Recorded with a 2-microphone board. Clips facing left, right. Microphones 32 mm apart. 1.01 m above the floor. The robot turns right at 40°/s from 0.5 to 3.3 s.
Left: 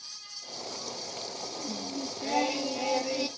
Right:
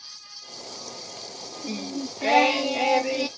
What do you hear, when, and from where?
1.6 s singing: 100° right, 0.8 m; by 3.3 s 35° right, 0.8 m